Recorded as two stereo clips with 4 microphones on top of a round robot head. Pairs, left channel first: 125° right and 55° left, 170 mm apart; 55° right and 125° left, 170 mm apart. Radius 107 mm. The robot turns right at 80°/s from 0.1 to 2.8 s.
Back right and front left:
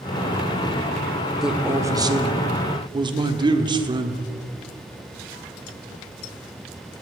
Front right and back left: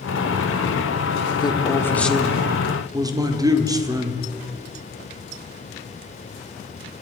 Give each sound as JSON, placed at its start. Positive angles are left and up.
{"t": 1.4, "sound": "a man speaking", "azimuth_deg": -30, "distance_m": 1.3}